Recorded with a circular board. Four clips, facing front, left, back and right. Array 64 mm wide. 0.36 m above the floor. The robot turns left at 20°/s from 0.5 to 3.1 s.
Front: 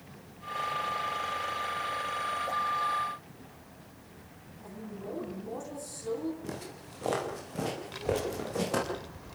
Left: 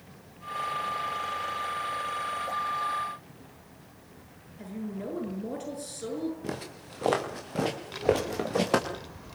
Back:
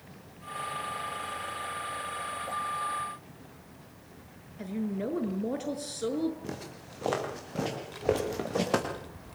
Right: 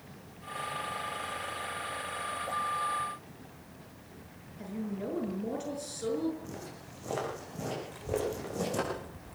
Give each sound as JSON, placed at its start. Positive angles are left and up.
{"t": 4.6, "sound": "a woman speaking", "azimuth_deg": 175, "distance_m": 6.5}
{"t": 6.4, "sound": "footsteps", "azimuth_deg": 95, "distance_m": 7.0}
{"t": 7.9, "sound": "a child speaking", "azimuth_deg": 70, "distance_m": 0.8}